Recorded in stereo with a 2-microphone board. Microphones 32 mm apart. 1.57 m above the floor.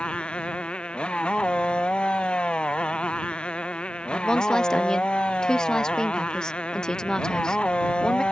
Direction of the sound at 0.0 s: 35° left (ahead or behind).